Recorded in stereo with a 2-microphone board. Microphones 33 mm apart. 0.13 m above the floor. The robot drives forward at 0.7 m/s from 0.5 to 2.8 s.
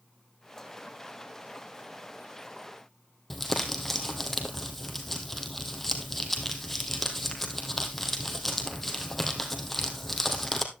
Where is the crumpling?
5° left (ahead or behind), 2 m.